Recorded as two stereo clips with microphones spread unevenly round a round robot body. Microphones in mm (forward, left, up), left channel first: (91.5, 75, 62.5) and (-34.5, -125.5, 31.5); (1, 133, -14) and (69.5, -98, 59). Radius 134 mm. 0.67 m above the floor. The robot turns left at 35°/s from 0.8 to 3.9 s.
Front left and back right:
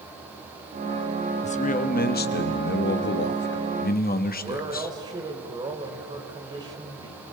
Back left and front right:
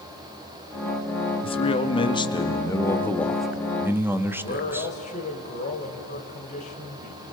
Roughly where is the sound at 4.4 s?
Behind.